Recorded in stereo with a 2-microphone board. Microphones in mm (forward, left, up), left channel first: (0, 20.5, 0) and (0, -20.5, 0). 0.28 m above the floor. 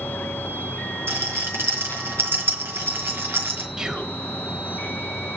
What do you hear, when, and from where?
0.0 s an insect: 60° left (ahead or behind), 0.8 m
1.1 s a rattle: 70° right (ahead or behind), 4.5 m
3.8 s whispering: 20° right (ahead or behind), 1.0 m